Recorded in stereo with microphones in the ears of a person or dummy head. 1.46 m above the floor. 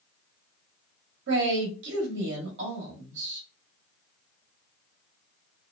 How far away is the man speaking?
About 1.0 m.